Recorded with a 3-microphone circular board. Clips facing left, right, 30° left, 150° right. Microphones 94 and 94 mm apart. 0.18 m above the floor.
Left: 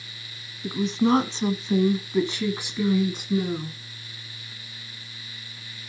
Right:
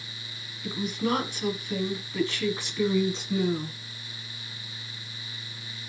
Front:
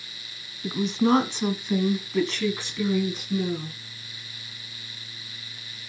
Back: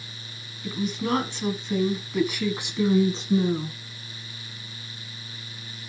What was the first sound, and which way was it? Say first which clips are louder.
A woman speaking: left 6 dB, front 5 dB; 50° left.